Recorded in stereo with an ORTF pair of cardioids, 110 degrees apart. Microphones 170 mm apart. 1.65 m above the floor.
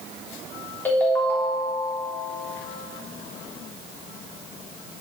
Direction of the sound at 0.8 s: 10° left.